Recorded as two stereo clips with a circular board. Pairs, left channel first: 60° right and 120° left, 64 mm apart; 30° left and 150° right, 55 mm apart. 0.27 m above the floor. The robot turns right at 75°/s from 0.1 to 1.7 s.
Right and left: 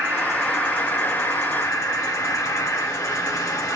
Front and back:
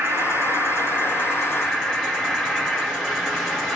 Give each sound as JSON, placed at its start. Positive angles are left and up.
{"t": 0.0, "sound": "an insect", "azimuth_deg": -175, "distance_m": 2.5}